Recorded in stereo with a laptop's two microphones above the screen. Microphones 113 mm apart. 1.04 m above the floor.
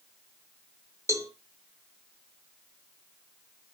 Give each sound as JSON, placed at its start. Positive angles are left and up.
{"t": 1.1, "sound": "a cowbell", "side_deg": -25, "distance_m": 1.0}